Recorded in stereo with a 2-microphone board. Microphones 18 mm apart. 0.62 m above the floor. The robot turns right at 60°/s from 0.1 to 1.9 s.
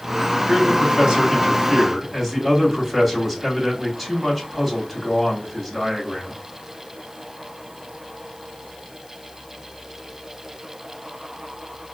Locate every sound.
0.5 s a man speaking: 95° right, 1.5 m; by 6.4 s 10° right, 1.5 m